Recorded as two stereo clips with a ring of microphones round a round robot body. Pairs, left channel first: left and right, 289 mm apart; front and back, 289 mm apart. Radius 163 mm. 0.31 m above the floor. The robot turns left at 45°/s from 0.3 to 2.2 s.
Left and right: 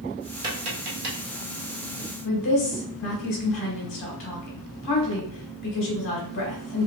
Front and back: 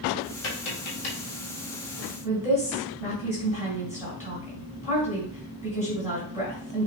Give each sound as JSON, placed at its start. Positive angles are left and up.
{"t": 0.4, "sound": "tapping", "azimuth_deg": -15, "distance_m": 2.0}
{"t": 2.2, "sound": "a woman speaking", "azimuth_deg": 100, "distance_m": 2.5}